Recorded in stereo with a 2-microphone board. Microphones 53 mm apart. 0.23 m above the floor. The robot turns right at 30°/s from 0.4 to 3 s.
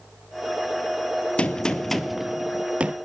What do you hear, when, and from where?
1.4 s a gunshot: 160° left, 0.9 m; by 3.0 s 155° right, 0.9 m